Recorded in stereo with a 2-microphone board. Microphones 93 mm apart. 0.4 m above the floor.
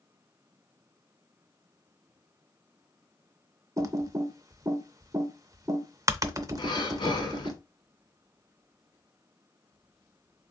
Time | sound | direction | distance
3.8 | typing on a keyboard | 40° right (ahead or behind) | 0.5 m
6.6 | breathing | 55° left (ahead or behind) | 0.9 m